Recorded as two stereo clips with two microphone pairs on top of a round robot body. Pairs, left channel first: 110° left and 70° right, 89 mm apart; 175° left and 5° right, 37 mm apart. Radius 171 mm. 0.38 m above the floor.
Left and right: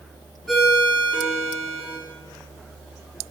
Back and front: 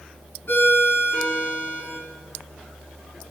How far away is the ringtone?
About 4 m.